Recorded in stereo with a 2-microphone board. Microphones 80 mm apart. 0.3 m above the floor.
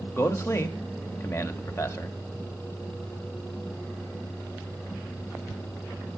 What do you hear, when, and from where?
0.1 s a man speaking: 35° left (ahead or behind), 1.1 m